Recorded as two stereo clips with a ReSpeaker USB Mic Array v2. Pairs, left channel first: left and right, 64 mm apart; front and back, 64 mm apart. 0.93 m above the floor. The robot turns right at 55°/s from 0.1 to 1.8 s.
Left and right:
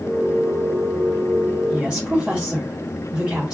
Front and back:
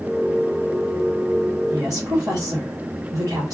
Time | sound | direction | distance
1.7 | a woman speaking | 170° right | 3 m